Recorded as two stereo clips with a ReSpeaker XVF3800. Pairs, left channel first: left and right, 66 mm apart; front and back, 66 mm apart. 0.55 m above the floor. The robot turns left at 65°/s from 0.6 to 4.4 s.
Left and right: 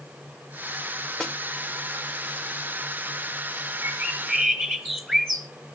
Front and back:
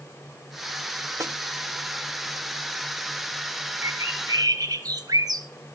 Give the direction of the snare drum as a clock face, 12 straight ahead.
6 o'clock.